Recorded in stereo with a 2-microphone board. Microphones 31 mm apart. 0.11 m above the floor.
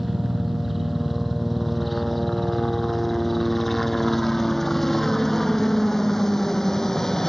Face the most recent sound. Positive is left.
turn(degrees=15)  # may be behind; listen again after turning